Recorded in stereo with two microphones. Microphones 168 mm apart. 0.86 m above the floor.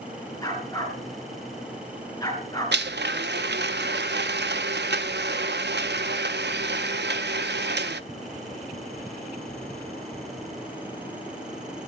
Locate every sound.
0.4 s a dog barking: 20° left (ahead or behind), 4.5 m
2.7 s a blender: 85° right, 0.7 m